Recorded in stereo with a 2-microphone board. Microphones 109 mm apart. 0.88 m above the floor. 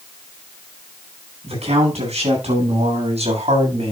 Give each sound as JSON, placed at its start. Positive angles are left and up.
{"t": 1.4, "sound": "a man speaking", "side_deg": -80, "distance_m": 9.5}